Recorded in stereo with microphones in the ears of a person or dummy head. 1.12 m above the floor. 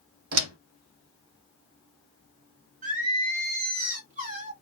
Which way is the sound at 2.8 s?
45° right (ahead or behind).